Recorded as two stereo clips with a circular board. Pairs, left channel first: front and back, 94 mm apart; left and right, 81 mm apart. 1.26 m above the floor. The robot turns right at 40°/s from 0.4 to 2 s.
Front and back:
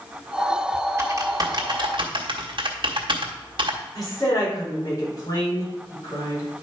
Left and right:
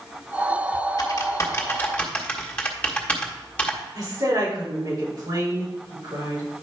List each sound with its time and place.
1.0 s typing on a keyboard: 120° left, 1.5 m; by 3.8 s 165° left, 1.5 m
4.0 s a woman speaking: 50° right, 5 m